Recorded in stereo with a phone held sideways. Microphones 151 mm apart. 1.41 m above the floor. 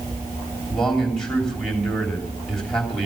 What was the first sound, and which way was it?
A man speaking, 5° left (ahead or behind).